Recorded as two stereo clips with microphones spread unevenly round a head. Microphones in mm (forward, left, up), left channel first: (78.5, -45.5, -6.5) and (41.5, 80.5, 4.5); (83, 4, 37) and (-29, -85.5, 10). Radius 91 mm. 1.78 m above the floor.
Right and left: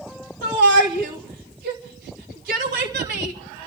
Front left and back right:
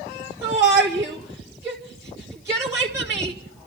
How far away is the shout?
About 2.5 m.